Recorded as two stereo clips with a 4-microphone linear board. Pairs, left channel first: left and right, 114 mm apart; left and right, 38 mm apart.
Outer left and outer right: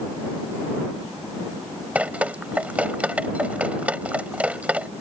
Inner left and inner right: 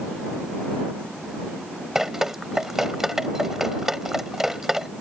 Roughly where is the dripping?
Centre.